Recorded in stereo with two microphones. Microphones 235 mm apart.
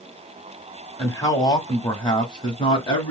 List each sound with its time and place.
1.0 s a man speaking: 10° left (ahead or behind), 1.3 m; by 3.1 s 20° left (ahead or behind), 1.5 m